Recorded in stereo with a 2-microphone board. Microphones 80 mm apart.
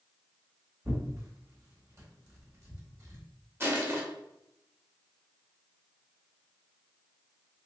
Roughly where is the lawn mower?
No lawn mower in this recording.